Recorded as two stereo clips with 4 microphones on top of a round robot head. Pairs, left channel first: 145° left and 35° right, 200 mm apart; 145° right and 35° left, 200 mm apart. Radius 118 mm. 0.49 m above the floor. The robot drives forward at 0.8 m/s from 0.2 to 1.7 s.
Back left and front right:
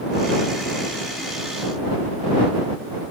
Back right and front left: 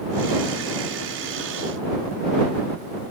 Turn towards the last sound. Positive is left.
No sound to turn to.